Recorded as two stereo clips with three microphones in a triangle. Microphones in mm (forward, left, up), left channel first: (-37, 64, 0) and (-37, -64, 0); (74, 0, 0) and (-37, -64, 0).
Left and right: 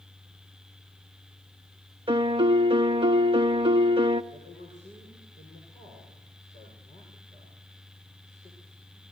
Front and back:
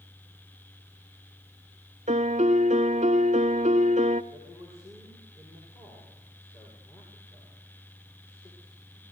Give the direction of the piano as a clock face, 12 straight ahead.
4 o'clock.